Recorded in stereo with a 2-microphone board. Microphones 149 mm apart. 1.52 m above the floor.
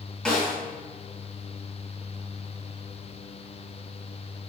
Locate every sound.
0.2 s a snare drum: centre (ahead or behind), 1.9 m